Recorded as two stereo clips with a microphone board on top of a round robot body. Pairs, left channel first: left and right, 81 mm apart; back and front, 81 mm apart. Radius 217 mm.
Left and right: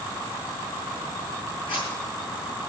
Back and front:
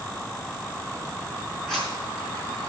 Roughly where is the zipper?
Left.